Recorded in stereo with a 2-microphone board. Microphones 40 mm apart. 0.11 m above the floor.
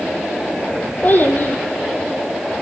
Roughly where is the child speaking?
Left.